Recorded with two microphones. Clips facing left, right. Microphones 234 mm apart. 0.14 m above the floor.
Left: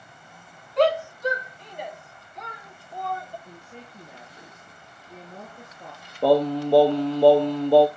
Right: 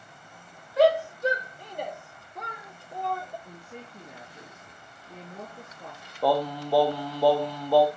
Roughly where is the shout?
Centre.